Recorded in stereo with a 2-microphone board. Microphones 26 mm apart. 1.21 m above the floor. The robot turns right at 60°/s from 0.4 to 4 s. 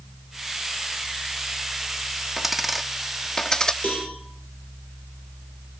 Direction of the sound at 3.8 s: 70° left (ahead or behind).